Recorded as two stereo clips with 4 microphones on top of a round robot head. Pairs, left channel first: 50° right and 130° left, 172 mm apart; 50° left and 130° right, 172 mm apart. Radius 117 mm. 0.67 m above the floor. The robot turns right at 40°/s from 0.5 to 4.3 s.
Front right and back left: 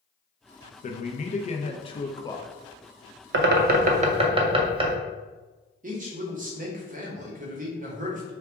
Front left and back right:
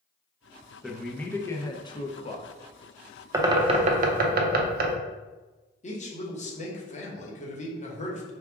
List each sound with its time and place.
0.8 s a man speaking: 45° right, 0.6 m; by 2.5 s 20° left, 0.6 m
3.3 s a bird: 155° left, 0.5 m; by 5.0 s 165° right, 0.5 m
5.8 s a man speaking: 95° left, 1.1 m